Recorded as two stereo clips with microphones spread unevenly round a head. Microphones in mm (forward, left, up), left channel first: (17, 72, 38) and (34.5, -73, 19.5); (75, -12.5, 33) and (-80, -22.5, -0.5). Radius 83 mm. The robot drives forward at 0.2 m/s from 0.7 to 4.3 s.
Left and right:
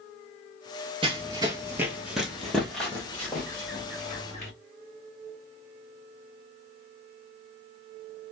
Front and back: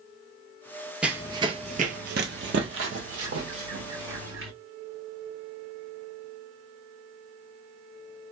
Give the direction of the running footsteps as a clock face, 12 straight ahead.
2 o'clock.